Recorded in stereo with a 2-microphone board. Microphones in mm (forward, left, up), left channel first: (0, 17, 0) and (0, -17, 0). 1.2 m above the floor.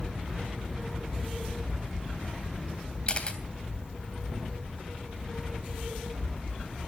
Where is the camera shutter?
35° left (ahead or behind), 2.5 m.